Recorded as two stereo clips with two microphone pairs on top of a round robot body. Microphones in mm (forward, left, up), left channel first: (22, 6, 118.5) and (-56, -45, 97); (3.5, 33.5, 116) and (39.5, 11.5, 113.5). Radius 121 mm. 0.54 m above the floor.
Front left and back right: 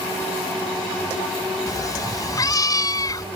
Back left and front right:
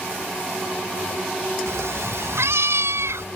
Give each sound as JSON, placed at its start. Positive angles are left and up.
{"t": 1.7, "sound": "a cat meowing", "azimuth_deg": -20}